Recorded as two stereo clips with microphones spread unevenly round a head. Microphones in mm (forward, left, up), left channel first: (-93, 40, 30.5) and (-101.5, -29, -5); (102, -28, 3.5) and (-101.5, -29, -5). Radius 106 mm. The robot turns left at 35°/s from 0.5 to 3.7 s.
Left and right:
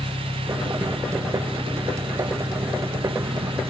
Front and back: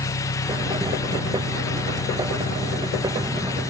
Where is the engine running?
40° left; by 3.7 s 75° right.